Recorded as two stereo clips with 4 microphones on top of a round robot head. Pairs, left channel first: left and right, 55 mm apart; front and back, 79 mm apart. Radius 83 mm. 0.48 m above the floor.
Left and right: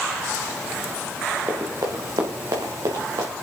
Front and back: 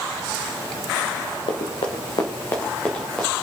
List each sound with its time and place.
1.5 s running footsteps: 30° right, 2.5 m; by 3.3 s 85° right, 3.5 m